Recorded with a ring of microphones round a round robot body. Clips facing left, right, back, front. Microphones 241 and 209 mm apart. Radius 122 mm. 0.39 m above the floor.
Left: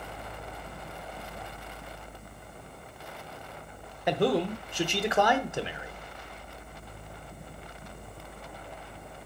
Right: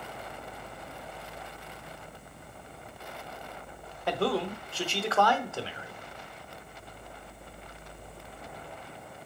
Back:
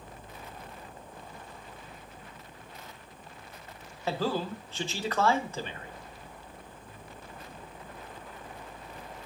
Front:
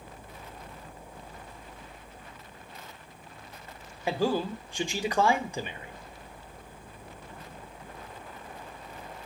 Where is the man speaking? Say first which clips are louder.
Left 3 dB, front 3 dB; 50° left, 0.9 m.